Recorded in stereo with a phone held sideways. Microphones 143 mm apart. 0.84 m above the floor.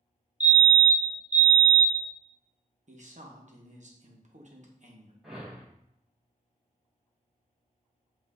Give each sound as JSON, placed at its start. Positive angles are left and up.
{"t": 0.4, "sound": "a fire alarm", "side_deg": -10, "distance_m": 1.3}
{"t": 2.9, "sound": "a man speaking", "side_deg": -55, "distance_m": 0.9}
{"t": 5.2, "sound": "a whoosh", "side_deg": 0, "distance_m": 1.3}